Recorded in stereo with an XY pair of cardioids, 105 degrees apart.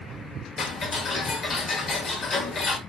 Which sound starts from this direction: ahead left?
Ticking, at 0.6 s.